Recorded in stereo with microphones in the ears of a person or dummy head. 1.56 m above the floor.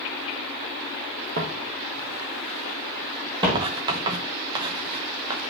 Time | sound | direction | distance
1.4 | footsteps | 45° right (ahead or behind) | 2.5 m
3.5 | writing | 20° right (ahead or behind) | 0.8 m